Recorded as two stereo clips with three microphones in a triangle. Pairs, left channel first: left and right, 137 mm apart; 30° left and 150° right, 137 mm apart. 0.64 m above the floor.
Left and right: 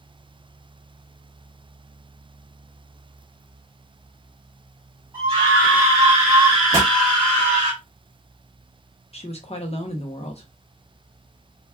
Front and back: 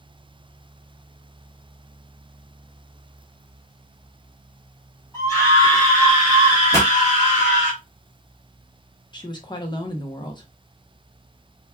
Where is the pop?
30° right, 1.6 m.